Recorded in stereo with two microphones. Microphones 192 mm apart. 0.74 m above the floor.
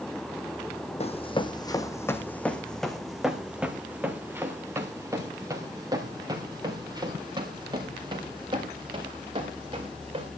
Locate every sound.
1.0 s running footsteps: 35° left (ahead or behind), 1.3 m; by 10.3 s 25° right (ahead or behind), 5.5 m